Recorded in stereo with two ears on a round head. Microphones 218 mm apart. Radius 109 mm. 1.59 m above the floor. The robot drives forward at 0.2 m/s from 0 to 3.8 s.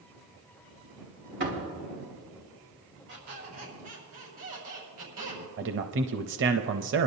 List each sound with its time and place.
1.4 s a door slam: 50° right (ahead or behind), 3 m
3.1 s a squeak: 75° right (ahead or behind), 5.5 m; by 5.4 s 70° right (ahead or behind), 5.5 m
5.6 s a man speaking: 50° right (ahead or behind), 0.5 m